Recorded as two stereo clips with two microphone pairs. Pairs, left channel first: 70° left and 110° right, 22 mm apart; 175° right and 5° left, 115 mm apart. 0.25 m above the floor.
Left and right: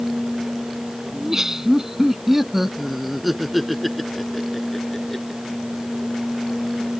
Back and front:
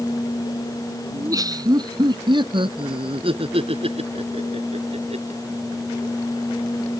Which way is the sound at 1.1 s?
50° right.